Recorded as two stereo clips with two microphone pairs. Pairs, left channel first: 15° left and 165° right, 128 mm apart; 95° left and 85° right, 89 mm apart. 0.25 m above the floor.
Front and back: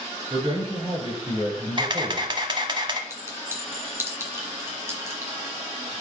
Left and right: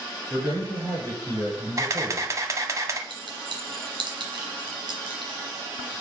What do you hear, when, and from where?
0.3 s a man speaking: 115° right, 3.5 m
1.8 s a camera shutter: 125° right, 0.8 m
3.1 s a clink: 100° right, 1.7 m